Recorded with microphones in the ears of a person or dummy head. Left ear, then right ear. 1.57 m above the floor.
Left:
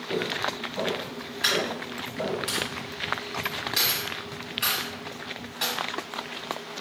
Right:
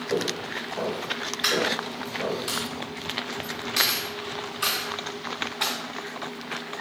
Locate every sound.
0.1 s footsteps: 20° right (ahead or behind), 1.7 m; by 2.4 s 30° left (ahead or behind), 2 m
1.4 s a dropped coin: 5° right (ahead or behind), 1.7 m